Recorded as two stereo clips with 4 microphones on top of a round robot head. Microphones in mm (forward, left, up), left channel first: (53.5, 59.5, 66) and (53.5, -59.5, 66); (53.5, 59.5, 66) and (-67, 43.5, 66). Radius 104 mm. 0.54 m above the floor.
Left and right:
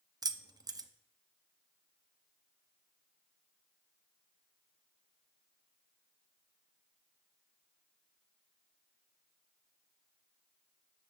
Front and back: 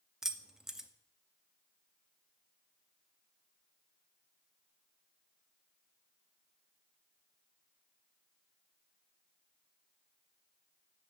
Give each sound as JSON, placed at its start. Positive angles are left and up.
{"t": 0.2, "sound": "keys jangling", "azimuth_deg": -90, "distance_m": 0.7}